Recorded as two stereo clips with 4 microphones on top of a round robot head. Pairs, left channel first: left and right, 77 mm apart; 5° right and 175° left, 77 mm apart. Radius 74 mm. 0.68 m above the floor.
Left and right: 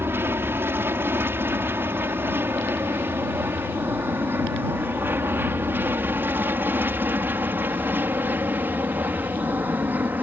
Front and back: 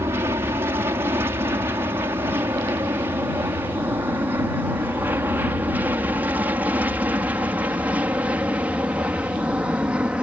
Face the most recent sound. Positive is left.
turn(degrees=-120)